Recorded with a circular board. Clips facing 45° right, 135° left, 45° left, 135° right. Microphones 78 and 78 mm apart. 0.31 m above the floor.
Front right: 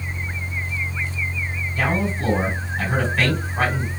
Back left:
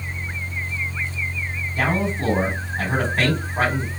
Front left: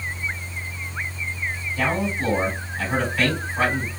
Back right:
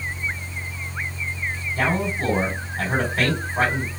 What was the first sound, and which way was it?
A man speaking, 170° right.